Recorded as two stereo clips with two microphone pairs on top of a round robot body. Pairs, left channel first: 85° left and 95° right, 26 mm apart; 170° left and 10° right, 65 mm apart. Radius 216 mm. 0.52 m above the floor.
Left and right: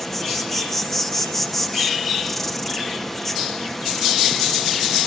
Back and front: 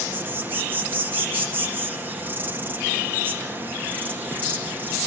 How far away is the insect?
About 2 m.